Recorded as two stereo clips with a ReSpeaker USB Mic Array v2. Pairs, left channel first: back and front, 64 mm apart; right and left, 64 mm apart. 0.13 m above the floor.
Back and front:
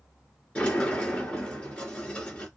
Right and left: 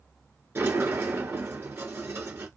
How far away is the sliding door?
About 1.9 m.